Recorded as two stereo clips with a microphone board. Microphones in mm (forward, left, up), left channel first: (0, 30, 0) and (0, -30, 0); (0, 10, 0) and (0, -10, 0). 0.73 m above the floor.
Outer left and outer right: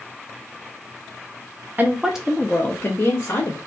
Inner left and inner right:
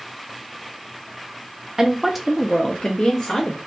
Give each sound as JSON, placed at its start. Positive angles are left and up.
{"t": 1.8, "sound": "a woman speaking", "side_deg": -30, "distance_m": 0.6}